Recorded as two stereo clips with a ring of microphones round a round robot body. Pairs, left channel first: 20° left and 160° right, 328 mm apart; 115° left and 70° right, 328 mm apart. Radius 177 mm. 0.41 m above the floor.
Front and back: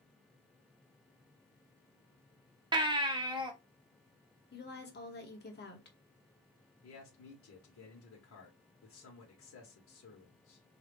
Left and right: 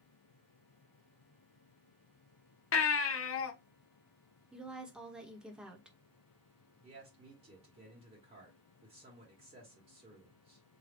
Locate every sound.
2.7 s a baby crying: 130° left, 0.8 m
4.5 s a woman speaking: 15° left, 1.3 m
6.8 s a man speaking: 5° right, 1.5 m